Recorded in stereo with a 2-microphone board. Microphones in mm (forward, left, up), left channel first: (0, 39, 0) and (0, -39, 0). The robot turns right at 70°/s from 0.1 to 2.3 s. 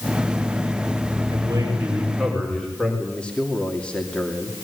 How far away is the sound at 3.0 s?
About 2.5 m.